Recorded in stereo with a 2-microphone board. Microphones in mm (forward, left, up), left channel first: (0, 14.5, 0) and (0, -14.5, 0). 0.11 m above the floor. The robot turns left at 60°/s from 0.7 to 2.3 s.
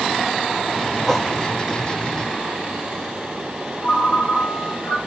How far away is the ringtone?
About 7 m.